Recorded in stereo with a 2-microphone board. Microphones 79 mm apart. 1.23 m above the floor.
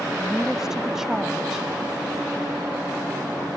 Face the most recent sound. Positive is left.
turn(degrees=-5)  # may be behind; listen again after turning